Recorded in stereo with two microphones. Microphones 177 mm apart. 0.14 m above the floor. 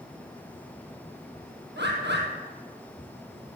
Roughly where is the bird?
Right.